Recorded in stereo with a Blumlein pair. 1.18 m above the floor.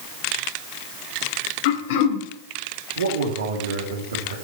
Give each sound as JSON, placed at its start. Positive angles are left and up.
{"t": 1.6, "sound": "throat clearing", "azimuth_deg": 50, "distance_m": 1.8}
{"t": 3.0, "sound": "a man speaking", "azimuth_deg": -70, "distance_m": 2.0}